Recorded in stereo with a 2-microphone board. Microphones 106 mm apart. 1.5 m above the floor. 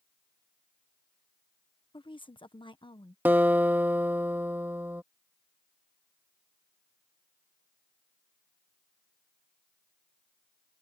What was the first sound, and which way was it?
A woman speaking, 50° left (ahead or behind).